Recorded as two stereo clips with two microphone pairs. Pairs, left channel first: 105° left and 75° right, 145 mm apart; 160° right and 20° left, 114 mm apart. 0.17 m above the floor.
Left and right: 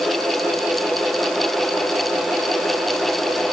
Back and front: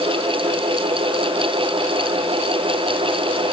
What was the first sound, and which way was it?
Only background noise.